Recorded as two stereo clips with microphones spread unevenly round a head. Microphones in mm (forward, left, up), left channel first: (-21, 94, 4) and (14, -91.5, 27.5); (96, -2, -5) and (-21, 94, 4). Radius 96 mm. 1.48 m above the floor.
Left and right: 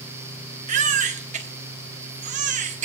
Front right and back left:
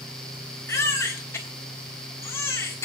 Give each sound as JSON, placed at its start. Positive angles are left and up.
{"t": 0.7, "sound": "a baby crying", "azimuth_deg": -115, "distance_m": 1.4}